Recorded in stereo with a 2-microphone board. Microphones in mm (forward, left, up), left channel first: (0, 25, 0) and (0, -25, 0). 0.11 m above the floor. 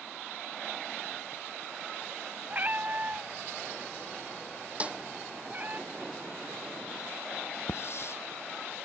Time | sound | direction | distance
2.5 | a cat meowing | 35° right (ahead or behind) | ?
4.8 | a snare drum | 25° right (ahead or behind) | ?
7.7 | a hiss | 60° left (ahead or behind) | ?